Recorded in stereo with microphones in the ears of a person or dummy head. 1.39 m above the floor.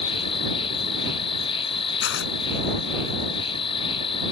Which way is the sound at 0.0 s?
30° left (ahead or behind).